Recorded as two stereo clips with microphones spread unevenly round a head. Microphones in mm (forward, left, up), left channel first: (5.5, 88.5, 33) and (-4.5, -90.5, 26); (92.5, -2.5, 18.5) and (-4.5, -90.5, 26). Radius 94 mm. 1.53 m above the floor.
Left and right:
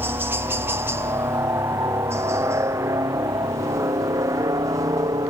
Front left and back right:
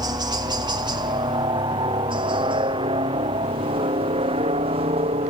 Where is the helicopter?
155° right.